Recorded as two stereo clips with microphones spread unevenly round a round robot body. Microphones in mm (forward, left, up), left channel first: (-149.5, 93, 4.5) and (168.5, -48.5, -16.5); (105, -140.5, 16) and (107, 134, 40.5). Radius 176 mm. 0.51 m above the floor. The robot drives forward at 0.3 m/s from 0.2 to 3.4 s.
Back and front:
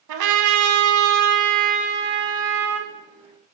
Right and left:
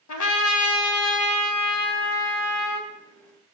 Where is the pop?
No pop in this recording.